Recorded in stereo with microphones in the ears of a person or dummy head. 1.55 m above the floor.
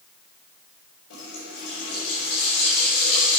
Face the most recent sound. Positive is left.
turn(degrees=80)